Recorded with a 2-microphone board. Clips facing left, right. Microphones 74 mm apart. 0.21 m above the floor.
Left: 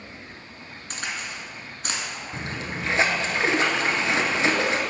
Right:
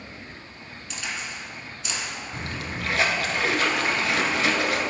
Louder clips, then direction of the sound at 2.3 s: Left 2 dB; 25° left (ahead or behind).